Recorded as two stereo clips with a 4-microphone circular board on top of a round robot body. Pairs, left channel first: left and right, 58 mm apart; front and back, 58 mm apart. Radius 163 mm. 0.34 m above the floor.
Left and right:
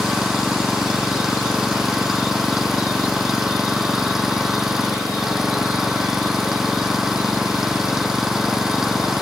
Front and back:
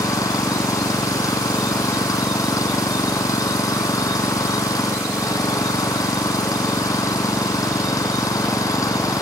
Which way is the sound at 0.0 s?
5° right.